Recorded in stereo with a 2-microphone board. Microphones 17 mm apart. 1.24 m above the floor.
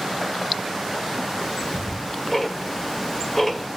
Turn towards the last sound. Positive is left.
turn(degrees=10)  # may be behind; listen again after turning